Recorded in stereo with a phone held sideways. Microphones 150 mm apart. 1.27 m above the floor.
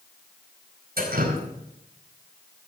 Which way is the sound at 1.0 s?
85° right.